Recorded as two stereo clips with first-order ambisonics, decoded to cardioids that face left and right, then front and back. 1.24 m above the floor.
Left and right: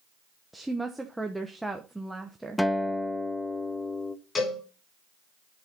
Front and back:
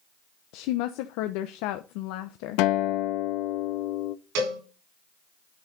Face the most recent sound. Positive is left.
turn(degrees=165)